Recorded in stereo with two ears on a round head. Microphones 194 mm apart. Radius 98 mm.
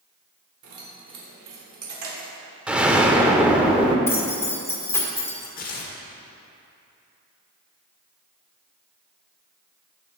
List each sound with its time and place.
0.6 s keys jangling: 85° right, 2.5 m; by 2.3 s 70° right (ahead or behind), 2 m
2.7 s an explosion: 5° right (ahead or behind), 0.9 m
4.1 s keys jangling: 10° left (ahead or behind), 1.6 m
5.6 s tearing paper: 45° left (ahead or behind), 1.5 m